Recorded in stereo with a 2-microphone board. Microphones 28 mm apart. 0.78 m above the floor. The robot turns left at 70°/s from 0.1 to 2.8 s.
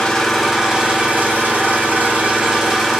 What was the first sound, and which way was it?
An engine running, 15° left.